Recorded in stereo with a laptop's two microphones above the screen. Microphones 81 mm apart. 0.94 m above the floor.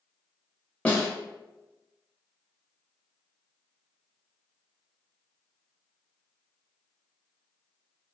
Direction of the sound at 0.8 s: 15° left (ahead or behind).